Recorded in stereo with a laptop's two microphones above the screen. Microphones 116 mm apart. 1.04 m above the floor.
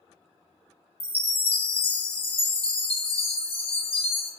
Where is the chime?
50° left (ahead or behind), 0.5 m.